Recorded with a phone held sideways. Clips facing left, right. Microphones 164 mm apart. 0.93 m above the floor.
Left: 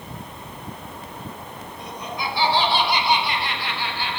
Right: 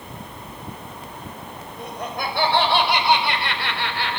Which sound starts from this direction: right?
Laughter, at 1.8 s.